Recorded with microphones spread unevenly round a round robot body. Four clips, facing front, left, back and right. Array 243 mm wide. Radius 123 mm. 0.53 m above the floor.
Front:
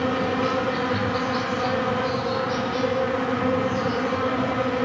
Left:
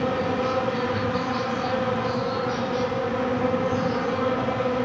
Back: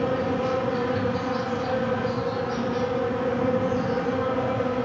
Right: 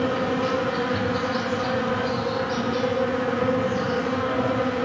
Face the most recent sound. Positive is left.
turn(degrees=0)